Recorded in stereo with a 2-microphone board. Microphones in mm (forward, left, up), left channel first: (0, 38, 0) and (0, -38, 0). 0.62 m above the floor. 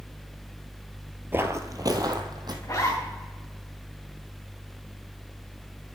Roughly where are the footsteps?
Right.